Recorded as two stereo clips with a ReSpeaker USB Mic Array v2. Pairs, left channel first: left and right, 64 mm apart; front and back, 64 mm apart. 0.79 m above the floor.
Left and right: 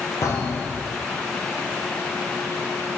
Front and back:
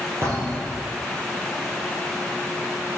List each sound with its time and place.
0.2 s a thud: 130° left, 3 m